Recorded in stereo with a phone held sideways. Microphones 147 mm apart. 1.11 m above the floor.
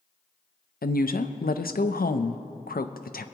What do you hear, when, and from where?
0.8 s a woman speaking: 85° left, 0.6 m